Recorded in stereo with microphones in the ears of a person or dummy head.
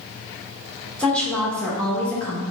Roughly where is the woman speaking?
Centre.